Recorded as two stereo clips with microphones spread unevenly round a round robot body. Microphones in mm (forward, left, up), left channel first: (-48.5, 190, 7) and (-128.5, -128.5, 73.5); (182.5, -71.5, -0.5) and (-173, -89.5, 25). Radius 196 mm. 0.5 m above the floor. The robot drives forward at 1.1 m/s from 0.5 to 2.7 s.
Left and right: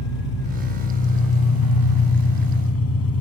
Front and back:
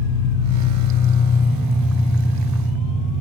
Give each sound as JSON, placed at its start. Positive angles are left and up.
{"t": 0.0, "sound": "an engine running", "azimuth_deg": 50, "distance_m": 2.0}